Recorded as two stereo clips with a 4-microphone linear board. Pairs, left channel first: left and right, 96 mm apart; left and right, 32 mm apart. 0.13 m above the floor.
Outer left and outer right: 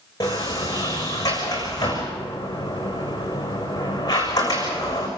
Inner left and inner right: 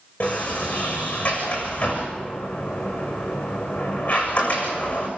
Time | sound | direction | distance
0.2 | a sliding door | 40° left (ahead or behind) | 7 m